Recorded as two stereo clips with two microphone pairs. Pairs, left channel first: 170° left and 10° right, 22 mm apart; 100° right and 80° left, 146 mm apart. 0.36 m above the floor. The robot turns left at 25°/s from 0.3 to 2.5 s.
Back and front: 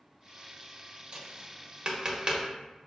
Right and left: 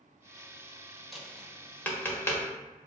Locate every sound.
1.1 s tapping: 15° right, 0.7 m; by 2.4 s 50° right, 0.7 m